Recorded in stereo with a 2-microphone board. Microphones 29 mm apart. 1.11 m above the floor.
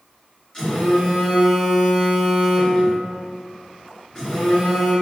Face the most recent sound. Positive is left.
turn(degrees=20)  # may be behind; listen again after turning